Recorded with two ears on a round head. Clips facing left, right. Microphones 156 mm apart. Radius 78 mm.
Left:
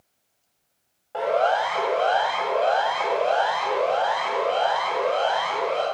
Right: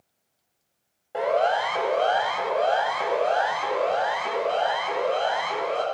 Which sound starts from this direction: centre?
A siren, at 1.1 s.